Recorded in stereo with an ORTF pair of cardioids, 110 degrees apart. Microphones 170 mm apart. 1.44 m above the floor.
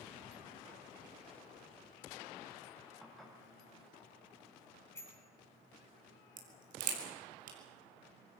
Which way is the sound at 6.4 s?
55° right.